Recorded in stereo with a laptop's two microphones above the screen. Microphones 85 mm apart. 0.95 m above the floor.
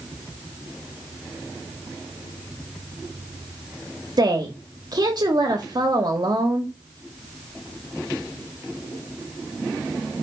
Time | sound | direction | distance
4.2 | a woman speaking | 55° right (ahead or behind) | 1.6 m